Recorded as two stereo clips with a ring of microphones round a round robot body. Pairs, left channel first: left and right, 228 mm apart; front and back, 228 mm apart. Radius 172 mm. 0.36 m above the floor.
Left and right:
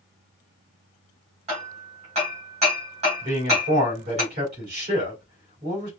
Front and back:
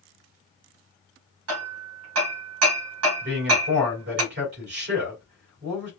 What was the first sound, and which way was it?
Hammering, 160° right.